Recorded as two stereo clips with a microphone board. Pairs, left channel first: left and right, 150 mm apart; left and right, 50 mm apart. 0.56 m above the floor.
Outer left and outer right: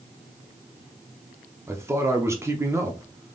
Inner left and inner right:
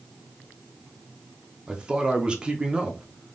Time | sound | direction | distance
1.7 | a man speaking | 20° right (ahead or behind) | 0.8 m